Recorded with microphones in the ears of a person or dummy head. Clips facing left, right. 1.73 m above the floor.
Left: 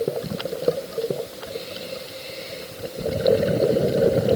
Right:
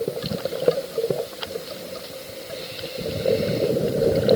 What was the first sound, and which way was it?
Only background noise.